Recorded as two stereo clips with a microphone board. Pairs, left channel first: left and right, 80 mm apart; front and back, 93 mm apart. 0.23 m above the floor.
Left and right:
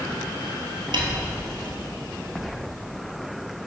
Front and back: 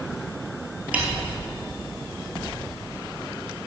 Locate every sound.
0.9 s a snare drum: 105° right, 1.4 m